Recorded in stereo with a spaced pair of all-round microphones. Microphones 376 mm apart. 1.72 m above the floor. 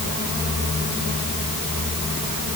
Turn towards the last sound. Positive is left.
No sound to turn to.